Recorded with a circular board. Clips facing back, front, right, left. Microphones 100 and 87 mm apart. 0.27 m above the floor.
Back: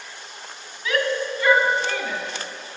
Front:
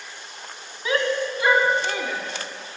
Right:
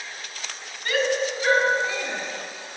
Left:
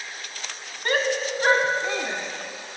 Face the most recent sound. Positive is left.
turn(degrees=80)